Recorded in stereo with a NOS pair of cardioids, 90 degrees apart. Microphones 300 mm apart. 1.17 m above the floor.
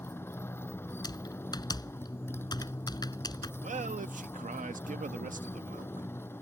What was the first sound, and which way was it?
A motorcycle, 10° left.